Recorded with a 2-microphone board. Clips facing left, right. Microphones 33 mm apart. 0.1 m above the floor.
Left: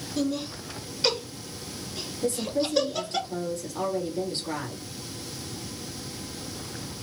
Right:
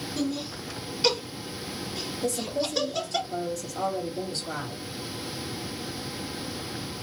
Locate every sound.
0.2 s laughter: centre (ahead or behind), 1.1 m
2.2 s a woman speaking: 40° left (ahead or behind), 1.8 m